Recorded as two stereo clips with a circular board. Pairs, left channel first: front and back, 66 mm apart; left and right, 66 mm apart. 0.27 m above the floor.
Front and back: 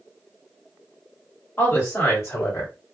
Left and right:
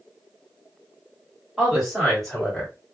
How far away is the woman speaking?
About 1.8 m.